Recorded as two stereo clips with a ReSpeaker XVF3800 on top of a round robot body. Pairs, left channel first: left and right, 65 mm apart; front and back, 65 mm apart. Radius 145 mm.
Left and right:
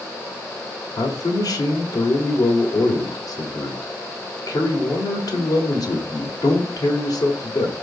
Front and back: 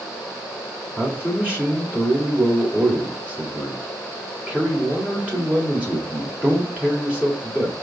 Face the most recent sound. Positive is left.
turn(degrees=110)